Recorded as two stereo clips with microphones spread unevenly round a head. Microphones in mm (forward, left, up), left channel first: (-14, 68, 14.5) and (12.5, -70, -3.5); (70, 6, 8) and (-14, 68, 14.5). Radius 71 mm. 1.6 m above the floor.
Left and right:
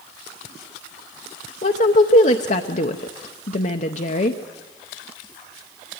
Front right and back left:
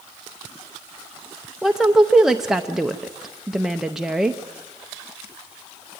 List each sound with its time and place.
1.6 s a woman speaking: 60° left, 0.8 m